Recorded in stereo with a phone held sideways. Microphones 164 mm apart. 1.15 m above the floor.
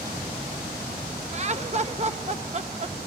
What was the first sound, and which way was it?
Laughter, 40° right (ahead or behind).